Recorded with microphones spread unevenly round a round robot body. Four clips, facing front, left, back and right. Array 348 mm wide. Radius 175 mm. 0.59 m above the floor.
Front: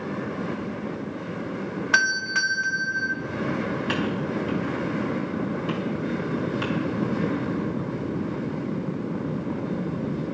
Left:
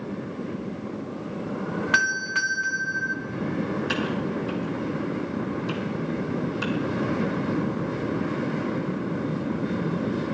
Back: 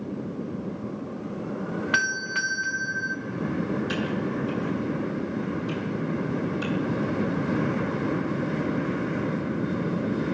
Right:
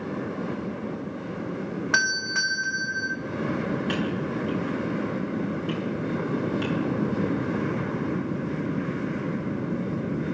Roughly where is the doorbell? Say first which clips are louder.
Left 1 dB, front 5 dB; ahead right.